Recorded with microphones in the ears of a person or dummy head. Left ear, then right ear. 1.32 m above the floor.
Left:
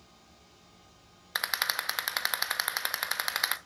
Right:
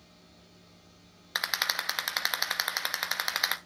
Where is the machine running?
40° left (ahead or behind), 4.5 m.